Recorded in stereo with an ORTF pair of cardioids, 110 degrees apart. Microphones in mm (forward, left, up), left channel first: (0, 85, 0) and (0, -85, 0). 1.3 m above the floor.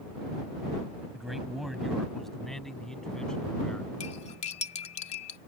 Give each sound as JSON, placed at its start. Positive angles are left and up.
{"t": 1.1, "sound": "a man speaking", "azimuth_deg": 0}
{"t": 4.0, "sound": "cutlery clinking", "azimuth_deg": 40}